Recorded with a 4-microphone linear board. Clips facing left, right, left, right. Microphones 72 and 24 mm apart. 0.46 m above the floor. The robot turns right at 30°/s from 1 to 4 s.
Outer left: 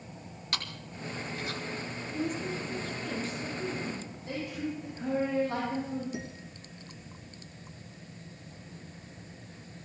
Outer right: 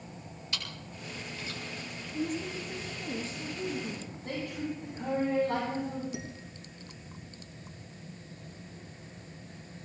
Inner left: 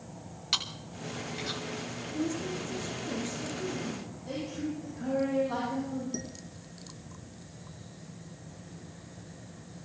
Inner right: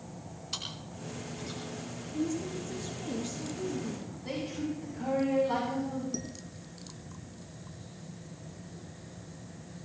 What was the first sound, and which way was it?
Chewing, 65° left (ahead or behind).